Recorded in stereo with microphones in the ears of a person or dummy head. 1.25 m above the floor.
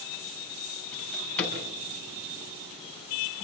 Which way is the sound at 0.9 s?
5° left (ahead or behind).